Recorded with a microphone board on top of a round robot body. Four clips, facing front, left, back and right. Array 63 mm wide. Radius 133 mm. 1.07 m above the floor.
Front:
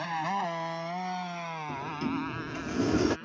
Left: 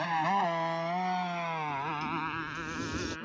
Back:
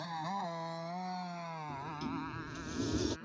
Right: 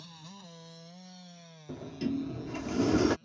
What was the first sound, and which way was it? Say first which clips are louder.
A motorcycle: left 23 dB, front 8 dB; 60° left.